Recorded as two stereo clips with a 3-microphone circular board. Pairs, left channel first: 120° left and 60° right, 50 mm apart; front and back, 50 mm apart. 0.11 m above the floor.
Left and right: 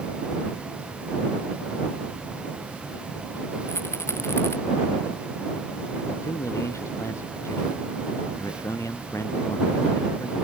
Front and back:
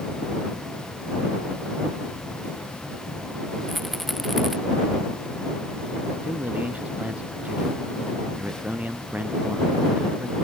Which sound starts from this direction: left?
A rattle, at 3.7 s.